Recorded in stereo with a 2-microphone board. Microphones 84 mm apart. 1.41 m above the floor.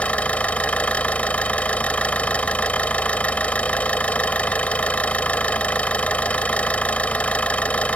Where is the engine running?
15° left (ahead or behind).